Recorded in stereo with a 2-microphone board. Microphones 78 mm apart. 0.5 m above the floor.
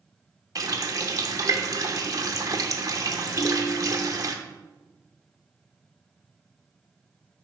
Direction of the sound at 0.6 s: 50° right (ahead or behind).